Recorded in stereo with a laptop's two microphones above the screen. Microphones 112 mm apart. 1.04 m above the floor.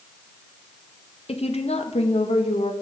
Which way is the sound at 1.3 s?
60° left (ahead or behind).